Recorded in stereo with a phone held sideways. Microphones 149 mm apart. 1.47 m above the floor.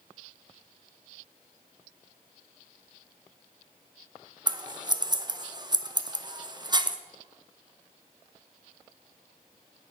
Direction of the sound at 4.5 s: 30° right (ahead or behind).